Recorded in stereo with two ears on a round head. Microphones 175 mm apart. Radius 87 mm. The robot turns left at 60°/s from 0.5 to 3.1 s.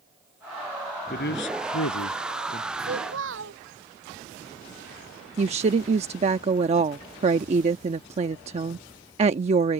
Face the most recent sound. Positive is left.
turn(degrees=-35)  # may be behind; listen again after turning